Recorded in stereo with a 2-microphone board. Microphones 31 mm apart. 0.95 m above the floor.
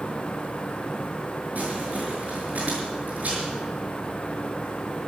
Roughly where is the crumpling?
Right.